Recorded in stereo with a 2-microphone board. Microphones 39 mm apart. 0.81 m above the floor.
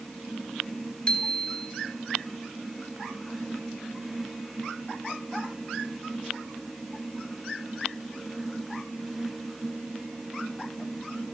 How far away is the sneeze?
I don't hear a sneeze.